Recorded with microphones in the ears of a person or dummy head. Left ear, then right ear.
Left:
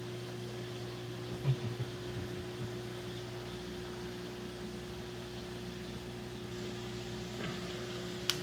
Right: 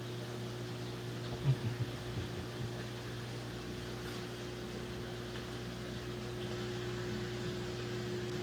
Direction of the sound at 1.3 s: 50° left (ahead or behind).